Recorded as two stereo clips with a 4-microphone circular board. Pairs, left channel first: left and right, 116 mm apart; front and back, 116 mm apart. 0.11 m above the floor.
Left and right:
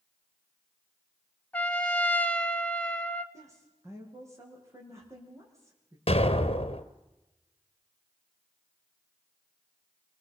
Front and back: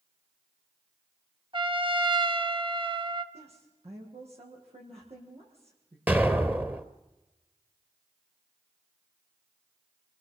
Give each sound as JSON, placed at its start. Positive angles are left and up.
{"t": 1.5, "sound": "a trumpet", "azimuth_deg": 165, "distance_m": 1.3}
{"t": 3.3, "sound": "a woman speaking", "azimuth_deg": -155, "distance_m": 6.0}
{"t": 6.1, "sound": "an explosion", "azimuth_deg": 105, "distance_m": 1.2}